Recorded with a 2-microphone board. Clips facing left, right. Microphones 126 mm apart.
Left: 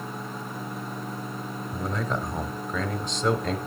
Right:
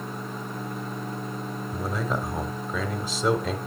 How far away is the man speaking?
About 0.9 m.